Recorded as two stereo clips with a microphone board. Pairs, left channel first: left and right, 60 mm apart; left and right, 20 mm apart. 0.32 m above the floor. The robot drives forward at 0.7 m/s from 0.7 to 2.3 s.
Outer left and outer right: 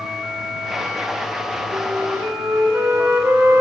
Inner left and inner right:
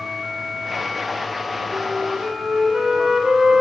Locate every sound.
1.7 s a flute: 30° right (ahead or behind), 1.2 m; by 3.6 s 40° right (ahead or behind), 0.9 m